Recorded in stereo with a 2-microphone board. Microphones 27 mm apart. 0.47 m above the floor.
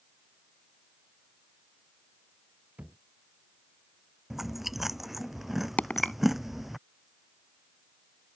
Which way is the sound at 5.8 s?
75° left (ahead or behind).